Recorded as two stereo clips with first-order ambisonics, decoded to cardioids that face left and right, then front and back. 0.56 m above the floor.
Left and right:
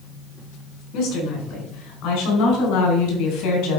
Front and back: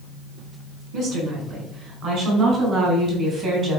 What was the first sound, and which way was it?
A woman speaking, 130° left.